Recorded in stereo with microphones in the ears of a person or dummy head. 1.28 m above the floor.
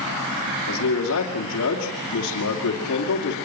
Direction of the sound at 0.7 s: 70° left (ahead or behind).